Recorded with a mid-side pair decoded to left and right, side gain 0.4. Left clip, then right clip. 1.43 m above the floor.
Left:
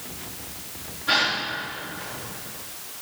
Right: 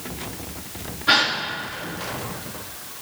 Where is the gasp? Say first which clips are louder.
Right 3 dB; 50° right, 3.5 m.